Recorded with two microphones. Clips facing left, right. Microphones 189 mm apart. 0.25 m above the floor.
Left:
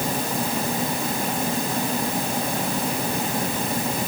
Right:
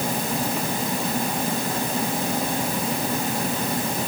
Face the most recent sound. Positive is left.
No sound to turn to.